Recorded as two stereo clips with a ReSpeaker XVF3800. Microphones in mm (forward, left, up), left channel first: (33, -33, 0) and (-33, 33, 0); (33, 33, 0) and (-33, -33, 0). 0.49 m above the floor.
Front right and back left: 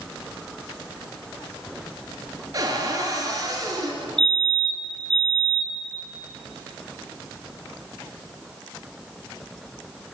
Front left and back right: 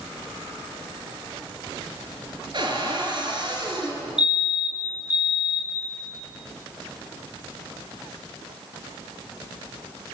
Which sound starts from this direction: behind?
A cupboard door, at 2.5 s.